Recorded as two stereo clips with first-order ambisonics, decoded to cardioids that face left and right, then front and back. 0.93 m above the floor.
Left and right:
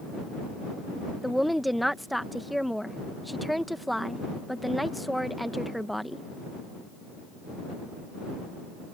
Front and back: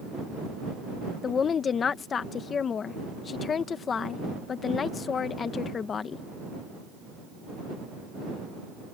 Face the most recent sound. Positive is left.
turn(degrees=0)